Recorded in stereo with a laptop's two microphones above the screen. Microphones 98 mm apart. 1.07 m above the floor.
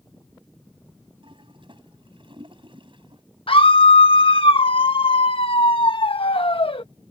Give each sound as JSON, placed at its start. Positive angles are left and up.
{"t": 1.2, "sound": "a toilet flushing", "side_deg": -60}
{"t": 3.5, "sound": "a scream", "side_deg": 65}